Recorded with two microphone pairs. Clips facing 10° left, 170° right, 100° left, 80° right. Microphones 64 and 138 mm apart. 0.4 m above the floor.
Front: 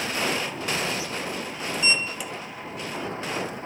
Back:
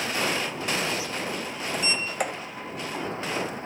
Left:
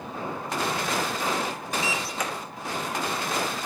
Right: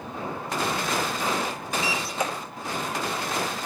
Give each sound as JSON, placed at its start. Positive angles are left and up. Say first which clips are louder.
{"t": 1.7, "sound": "a sliding door", "louder": "front 1 dB, right 2 dB", "azimuth_deg": -145, "distance_m": 1.2}